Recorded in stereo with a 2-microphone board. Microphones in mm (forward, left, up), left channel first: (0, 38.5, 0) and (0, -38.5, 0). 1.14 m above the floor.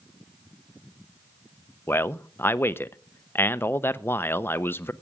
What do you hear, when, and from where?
1.9 s a man speaking: 30° left (ahead or behind), 0.6 m